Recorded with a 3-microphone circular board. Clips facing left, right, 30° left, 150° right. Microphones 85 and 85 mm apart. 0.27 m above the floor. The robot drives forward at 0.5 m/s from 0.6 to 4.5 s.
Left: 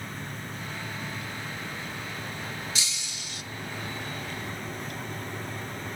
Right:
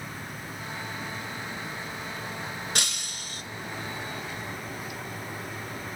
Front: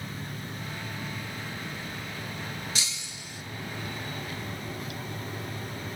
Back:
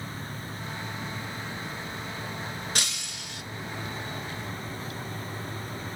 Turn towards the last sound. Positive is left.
turn(degrees=-155)